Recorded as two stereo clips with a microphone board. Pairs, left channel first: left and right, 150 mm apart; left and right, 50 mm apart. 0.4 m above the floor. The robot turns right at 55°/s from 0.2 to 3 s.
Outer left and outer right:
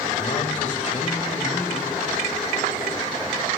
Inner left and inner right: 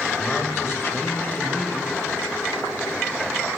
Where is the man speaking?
75° left, 1.5 m; by 1.9 s 170° left, 1.5 m.